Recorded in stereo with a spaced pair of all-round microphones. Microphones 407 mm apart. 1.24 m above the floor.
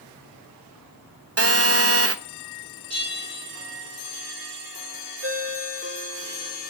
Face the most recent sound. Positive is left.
turn(degrees=-30)  # may be behind; listen again after turning